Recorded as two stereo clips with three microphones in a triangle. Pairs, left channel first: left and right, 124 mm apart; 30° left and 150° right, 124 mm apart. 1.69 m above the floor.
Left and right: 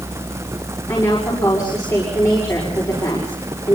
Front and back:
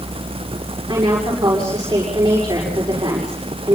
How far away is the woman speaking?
About 6.5 m.